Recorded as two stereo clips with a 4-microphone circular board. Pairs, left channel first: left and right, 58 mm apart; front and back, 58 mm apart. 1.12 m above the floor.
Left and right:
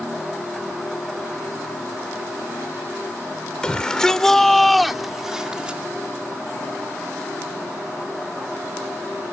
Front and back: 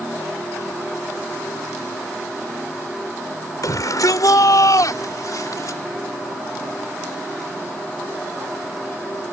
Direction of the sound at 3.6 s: 15° left.